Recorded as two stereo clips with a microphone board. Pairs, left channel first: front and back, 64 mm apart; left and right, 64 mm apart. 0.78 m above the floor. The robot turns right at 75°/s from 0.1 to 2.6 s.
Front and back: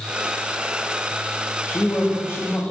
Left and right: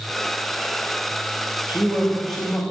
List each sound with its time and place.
1.7 s a man speaking: 40° right, 1.0 m; by 2.6 s 30° left, 1.0 m